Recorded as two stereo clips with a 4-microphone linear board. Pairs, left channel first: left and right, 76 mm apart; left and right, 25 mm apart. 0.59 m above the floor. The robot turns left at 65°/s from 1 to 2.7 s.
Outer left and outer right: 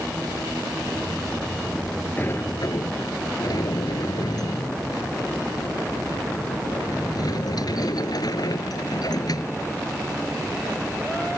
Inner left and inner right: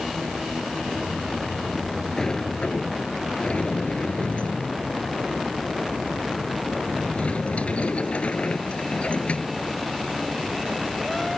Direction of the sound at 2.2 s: 155° left.